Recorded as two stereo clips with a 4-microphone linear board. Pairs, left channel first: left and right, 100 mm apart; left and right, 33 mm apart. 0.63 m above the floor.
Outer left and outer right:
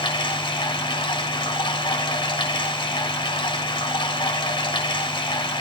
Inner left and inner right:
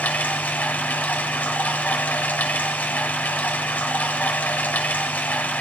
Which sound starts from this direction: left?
Running water, at 0.0 s.